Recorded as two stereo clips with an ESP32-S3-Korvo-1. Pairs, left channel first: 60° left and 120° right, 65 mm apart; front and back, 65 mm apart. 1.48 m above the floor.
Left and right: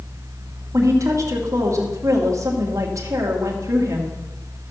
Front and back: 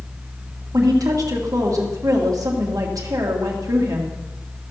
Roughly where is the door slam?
I don't hear a door slam.